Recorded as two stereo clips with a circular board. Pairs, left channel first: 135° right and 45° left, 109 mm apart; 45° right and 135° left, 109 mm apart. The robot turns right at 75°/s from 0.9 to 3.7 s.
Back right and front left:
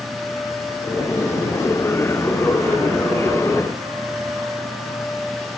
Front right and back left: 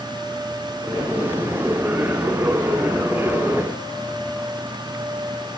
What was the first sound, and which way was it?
Only background noise.